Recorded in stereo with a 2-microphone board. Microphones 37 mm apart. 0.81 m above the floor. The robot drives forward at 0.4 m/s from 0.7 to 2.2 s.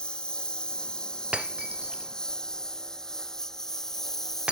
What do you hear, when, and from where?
0.0 s a lawn mower: 25° left (ahead or behind); by 4.5 s 10° left (ahead or behind)
1.3 s breaking glass: 30° right (ahead or behind)